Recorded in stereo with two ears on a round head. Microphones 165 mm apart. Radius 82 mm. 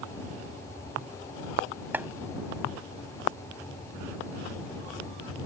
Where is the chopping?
10° right (ahead or behind).